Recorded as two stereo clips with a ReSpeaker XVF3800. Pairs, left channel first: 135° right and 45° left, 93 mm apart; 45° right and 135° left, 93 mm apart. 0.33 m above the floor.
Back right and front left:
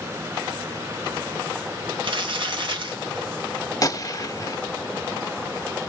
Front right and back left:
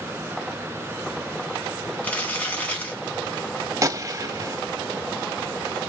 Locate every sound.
2.0 s crumpling: 25° left, 3 m
3.8 s a gunshot: 175° right, 0.9 m